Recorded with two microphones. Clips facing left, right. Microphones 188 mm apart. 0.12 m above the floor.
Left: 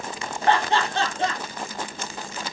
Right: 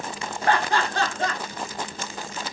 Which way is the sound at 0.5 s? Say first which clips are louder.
Left 1 dB; 25° left (ahead or behind).